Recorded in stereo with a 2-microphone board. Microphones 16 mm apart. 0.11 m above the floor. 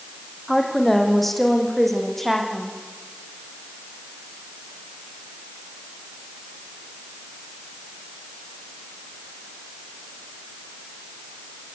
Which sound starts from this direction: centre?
A woman speaking, at 0.5 s.